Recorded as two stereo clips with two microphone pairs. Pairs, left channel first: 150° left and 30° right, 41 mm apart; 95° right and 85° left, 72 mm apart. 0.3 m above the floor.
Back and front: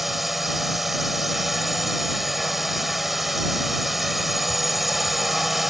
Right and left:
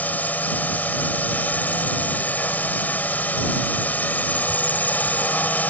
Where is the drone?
110° right.